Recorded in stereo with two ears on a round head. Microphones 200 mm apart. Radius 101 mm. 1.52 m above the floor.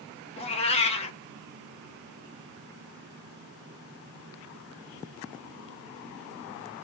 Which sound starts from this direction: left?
A cat meowing, at 0.4 s.